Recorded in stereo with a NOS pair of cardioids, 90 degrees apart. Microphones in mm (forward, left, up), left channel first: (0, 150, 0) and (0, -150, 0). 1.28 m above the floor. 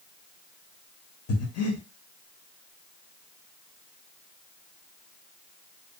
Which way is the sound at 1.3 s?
55° left.